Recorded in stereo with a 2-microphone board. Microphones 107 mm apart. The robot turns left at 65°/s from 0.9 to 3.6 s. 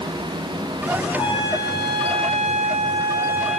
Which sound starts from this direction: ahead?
A trumpet, at 1.1 s.